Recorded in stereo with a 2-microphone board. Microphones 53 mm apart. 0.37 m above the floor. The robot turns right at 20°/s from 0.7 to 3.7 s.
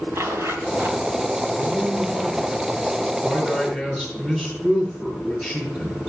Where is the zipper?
60° right (ahead or behind), 2.5 m; by 1.0 s 55° right (ahead or behind), 2.5 m.